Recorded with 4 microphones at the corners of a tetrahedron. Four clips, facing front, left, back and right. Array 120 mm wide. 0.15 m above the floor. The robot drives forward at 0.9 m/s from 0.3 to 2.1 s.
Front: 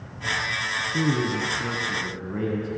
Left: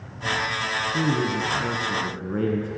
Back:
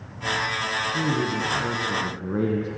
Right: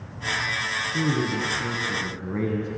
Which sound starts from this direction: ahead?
A man speaking, at 0.9 s.